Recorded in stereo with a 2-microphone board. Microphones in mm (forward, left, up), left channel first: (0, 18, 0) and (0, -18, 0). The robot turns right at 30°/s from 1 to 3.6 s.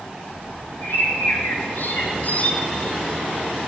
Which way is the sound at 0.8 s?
85° left.